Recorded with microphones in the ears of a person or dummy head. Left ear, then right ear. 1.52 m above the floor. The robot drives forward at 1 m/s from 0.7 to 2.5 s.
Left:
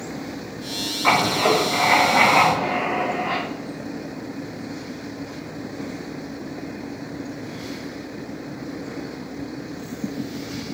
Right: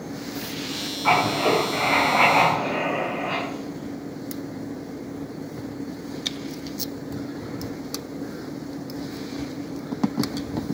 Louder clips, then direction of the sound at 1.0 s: Left 2 dB; 30° left (ahead or behind).